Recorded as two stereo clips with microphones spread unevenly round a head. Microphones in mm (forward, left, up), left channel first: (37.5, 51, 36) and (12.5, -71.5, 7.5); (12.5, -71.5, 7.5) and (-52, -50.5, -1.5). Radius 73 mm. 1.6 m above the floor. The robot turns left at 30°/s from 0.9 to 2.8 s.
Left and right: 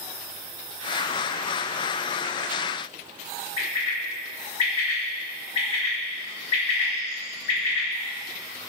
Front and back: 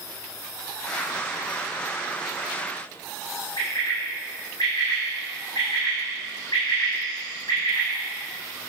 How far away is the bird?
About 4.5 m.